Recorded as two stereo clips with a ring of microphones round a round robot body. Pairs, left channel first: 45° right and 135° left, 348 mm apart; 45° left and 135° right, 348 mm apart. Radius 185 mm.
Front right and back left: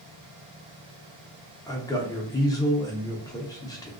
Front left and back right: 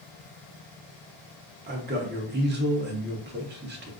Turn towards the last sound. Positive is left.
turn(degrees=-115)